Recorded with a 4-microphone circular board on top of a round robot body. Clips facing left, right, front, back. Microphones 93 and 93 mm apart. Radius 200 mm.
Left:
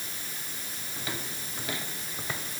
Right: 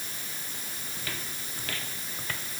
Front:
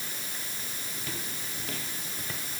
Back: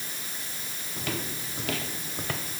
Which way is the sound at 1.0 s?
160° left.